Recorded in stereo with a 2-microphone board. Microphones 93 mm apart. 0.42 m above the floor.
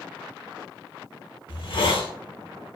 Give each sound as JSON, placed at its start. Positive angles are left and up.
{"t": 1.5, "sound": "a hiss", "side_deg": 65, "distance_m": 0.6}